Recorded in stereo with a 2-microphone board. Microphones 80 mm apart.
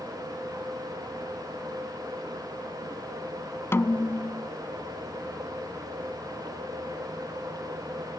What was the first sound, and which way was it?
A snare drum, 35° left (ahead or behind).